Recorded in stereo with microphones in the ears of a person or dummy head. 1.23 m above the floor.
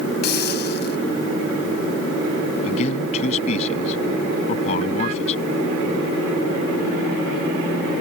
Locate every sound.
0.2 s a hiss: 50° left (ahead or behind)
2.6 s a man speaking: 40° left (ahead or behind)